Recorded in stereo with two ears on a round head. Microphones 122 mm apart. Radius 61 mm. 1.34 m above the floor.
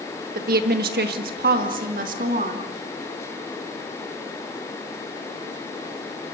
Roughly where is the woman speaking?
Right.